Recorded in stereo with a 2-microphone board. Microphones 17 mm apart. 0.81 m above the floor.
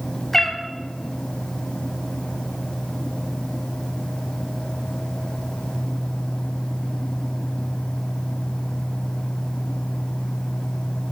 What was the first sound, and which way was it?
A cat meowing, 20° left (ahead or behind).